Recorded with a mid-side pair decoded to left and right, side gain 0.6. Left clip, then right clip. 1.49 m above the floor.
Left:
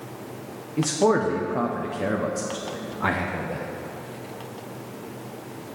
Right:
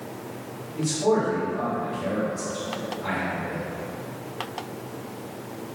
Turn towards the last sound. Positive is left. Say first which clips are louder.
# left 2 dB
turn(degrees=70)